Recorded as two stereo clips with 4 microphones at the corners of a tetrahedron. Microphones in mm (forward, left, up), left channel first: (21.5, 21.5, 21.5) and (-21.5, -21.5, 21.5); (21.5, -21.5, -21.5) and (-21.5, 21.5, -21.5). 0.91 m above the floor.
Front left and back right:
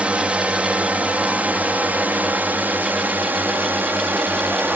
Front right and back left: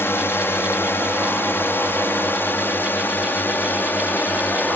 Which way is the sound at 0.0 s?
75° right.